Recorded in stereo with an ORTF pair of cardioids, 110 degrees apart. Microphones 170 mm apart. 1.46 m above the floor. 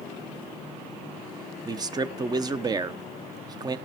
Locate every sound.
1.6 s a man speaking: 25° right, 0.9 m